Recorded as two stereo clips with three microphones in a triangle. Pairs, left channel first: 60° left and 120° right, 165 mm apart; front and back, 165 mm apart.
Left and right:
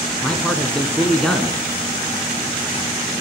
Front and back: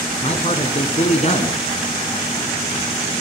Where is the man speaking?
25° right, 1.9 m.